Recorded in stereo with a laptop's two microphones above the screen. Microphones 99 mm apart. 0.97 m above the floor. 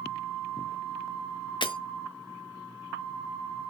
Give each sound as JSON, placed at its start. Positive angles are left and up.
{"t": 1.6, "sound": "breaking glass", "side_deg": 55, "distance_m": 1.2}